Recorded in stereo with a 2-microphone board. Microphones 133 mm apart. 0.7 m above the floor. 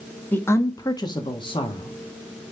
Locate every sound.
0.3 s a woman speaking: 15° left (ahead or behind), 1.1 m; by 2.5 s 40° left (ahead or behind), 2.5 m